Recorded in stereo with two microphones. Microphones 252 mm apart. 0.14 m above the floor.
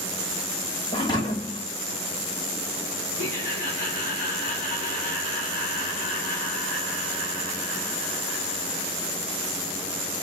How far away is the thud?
About 1.6 m.